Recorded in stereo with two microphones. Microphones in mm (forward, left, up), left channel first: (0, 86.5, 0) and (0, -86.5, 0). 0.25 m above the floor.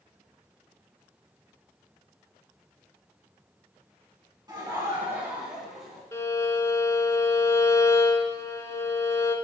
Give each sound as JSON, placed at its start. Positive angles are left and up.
{"t": 4.5, "sound": "laughter", "side_deg": -25, "distance_m": 2.5}
{"t": 6.1, "sound": "a violin", "side_deg": 20, "distance_m": 0.8}